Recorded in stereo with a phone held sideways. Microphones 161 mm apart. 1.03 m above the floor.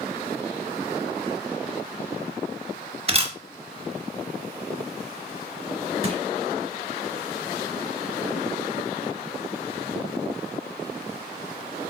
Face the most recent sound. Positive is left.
turn(degrees=45)  # may be behind; listen again after turning